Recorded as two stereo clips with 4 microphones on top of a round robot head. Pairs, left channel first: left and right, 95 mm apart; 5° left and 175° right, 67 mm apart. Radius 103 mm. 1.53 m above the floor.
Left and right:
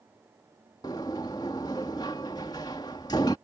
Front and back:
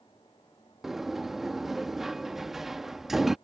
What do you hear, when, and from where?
0.8 s a sliding door: 100° left